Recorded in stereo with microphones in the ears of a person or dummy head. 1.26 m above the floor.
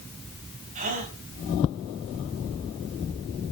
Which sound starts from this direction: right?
A gasp, at 0.8 s.